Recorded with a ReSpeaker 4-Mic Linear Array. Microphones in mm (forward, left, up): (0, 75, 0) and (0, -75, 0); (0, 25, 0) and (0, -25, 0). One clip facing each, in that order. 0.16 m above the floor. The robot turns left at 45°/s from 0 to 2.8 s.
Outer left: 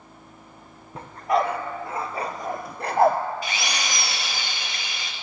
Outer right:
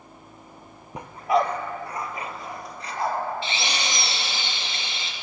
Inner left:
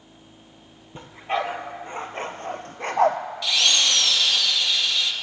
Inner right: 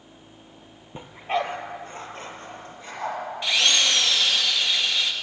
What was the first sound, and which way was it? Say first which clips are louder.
A dog barking: outer right 1 dB, even; 15° right (ahead or behind).